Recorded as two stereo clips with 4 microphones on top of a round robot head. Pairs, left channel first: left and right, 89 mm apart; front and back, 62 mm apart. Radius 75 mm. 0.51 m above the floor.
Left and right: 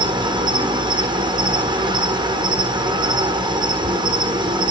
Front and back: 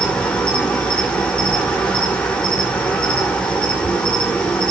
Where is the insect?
75° right, 1.2 m.